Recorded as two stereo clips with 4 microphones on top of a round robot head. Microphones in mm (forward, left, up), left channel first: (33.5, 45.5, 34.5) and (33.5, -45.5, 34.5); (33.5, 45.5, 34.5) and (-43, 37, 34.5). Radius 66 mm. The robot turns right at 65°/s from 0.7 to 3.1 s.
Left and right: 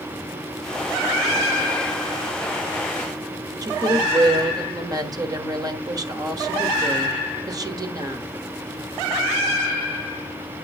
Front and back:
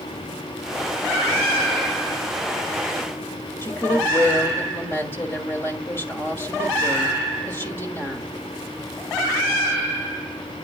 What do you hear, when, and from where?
3.6 s a woman speaking: 50° right, 1.5 m